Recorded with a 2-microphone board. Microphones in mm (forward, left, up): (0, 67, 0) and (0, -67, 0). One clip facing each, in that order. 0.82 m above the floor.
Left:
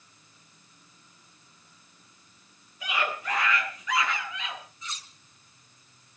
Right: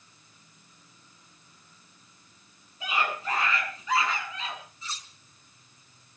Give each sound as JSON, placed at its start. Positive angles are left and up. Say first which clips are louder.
{"t": 2.8, "sound": "a scream", "louder": "right 1 dB", "side_deg": -25, "distance_m": 9.5}
{"t": 4.8, "sound": "cutlery clinking", "louder": "right 1 dB", "side_deg": -30, "distance_m": 4.5}